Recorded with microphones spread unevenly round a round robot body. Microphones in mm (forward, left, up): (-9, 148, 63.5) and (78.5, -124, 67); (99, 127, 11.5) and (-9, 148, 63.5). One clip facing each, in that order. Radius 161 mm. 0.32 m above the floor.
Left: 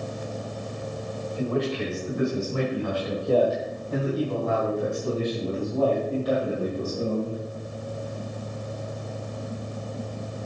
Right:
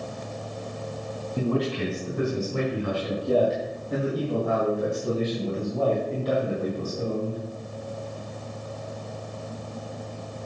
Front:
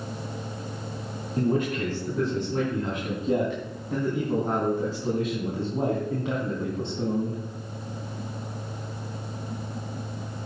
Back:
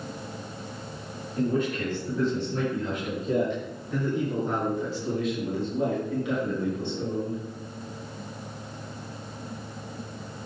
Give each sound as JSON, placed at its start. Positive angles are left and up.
{"t": 1.4, "sound": "a man speaking", "azimuth_deg": -20, "distance_m": 4.5}